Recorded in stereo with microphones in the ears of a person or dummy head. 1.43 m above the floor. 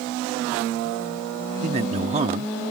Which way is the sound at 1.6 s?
35° right (ahead or behind).